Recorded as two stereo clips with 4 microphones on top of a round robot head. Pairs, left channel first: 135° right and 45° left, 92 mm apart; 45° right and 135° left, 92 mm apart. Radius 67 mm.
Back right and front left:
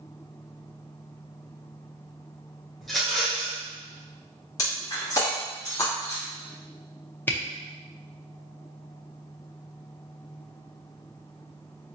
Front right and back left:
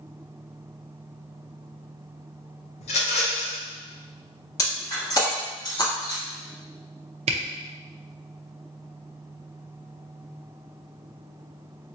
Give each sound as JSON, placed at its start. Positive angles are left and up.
{"t": 2.8, "sound": "a rattle", "azimuth_deg": -50, "distance_m": 0.8}
{"t": 4.6, "sound": "breaking glass", "azimuth_deg": -85, "distance_m": 1.3}
{"t": 7.3, "sound": "a camera shutter", "azimuth_deg": 155, "distance_m": 0.6}